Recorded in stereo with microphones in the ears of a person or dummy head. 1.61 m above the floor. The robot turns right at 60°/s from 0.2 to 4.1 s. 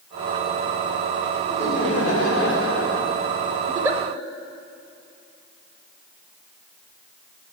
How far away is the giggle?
About 0.6 m.